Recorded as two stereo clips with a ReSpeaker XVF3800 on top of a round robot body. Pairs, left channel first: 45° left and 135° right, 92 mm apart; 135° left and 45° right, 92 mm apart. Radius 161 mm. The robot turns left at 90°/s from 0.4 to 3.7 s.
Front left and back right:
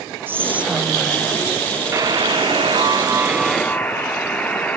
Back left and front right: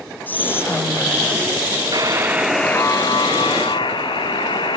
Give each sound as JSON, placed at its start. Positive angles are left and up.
{"t": 0.3, "sound": "whispering", "azimuth_deg": -175, "distance_m": 0.7}
{"t": 1.9, "sound": "a buzzer", "azimuth_deg": -80, "distance_m": 1.3}